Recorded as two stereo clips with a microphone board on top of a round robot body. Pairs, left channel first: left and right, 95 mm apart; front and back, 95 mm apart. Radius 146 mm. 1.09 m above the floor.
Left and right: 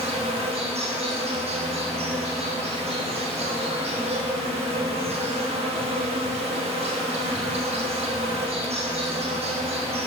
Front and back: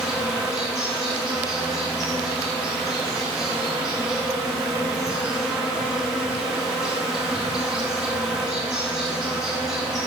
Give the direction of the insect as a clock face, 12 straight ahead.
3 o'clock.